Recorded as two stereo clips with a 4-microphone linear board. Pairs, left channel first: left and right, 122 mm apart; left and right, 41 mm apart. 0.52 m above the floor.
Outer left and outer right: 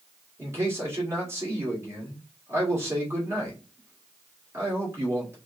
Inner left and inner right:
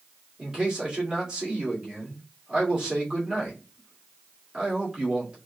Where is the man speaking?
20° right (ahead or behind), 1.9 m.